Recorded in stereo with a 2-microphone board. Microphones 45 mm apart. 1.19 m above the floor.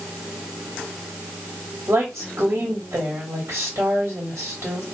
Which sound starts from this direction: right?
A woman speaking, at 1.9 s.